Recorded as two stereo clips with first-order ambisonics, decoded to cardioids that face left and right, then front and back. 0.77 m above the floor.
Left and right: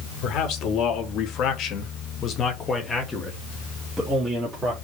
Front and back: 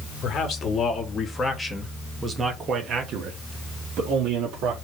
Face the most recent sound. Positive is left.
turn(degrees=-160)